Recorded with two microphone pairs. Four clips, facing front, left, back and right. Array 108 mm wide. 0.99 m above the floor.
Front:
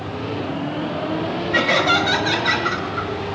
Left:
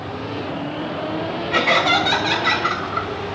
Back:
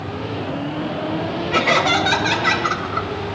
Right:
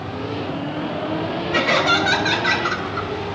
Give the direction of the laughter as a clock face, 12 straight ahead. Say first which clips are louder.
Left 1 dB, back 1 dB; 8 o'clock.